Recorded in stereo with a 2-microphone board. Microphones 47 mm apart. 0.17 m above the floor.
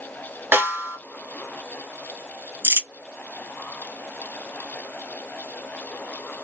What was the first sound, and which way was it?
A snare drum, 50° right (ahead or behind).